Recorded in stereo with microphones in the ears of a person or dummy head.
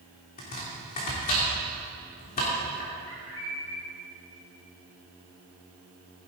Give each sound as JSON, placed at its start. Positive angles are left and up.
{"t": 0.4, "sound": "chopping", "side_deg": 45, "distance_m": 3.0}
{"t": 3.1, "sound": "a bird", "side_deg": 80, "distance_m": 3.0}